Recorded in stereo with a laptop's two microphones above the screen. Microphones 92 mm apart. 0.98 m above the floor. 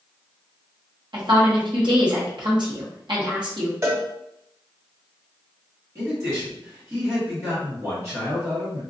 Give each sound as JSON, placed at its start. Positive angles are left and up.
{"t": 1.1, "sound": "a woman speaking", "side_deg": -55, "distance_m": 0.9}
{"t": 3.8, "sound": "a cowbell", "side_deg": -30, "distance_m": 0.7}
{"t": 6.0, "sound": "a man speaking", "side_deg": -30, "distance_m": 1.6}